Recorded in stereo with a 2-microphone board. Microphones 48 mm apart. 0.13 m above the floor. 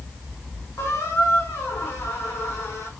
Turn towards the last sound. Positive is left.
turn(degrees=65)  # may be behind; listen again after turning